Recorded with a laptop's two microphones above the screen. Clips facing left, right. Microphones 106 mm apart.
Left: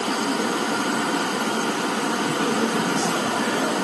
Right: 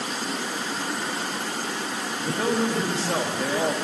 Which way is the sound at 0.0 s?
70° left (ahead or behind).